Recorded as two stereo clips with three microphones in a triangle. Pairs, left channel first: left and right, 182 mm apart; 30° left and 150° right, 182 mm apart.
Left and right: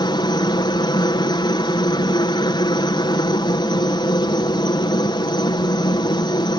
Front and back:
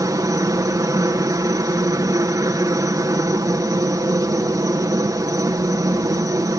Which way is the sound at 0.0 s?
145° left.